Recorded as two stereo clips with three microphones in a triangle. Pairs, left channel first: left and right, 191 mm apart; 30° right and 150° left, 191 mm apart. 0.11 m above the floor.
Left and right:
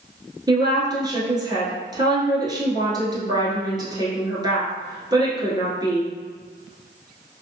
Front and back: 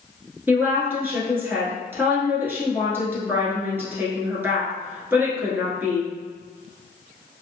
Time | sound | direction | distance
0.5 | a woman speaking | 140° right | 1.3 m